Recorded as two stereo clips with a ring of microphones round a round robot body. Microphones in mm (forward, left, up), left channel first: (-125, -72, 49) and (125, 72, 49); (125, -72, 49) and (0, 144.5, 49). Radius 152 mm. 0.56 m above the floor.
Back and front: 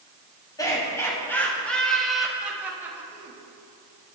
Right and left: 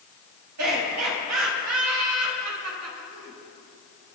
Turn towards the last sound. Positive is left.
turn(degrees=105)